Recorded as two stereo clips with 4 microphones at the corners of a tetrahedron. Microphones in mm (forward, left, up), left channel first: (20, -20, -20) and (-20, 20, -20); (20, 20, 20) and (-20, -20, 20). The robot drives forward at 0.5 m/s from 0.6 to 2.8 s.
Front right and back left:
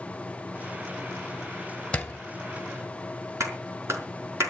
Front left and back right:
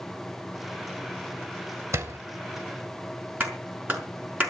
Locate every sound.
1.9 s a door slam: 110° right, 1.5 m; by 2.2 s 115° right, 1.5 m
3.4 s a clap: 170° left, 5 m